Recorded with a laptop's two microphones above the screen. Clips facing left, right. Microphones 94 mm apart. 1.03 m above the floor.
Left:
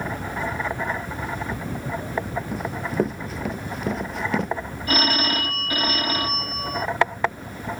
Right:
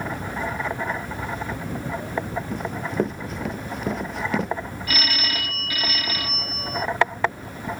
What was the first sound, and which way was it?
Running footsteps, centre (ahead or behind).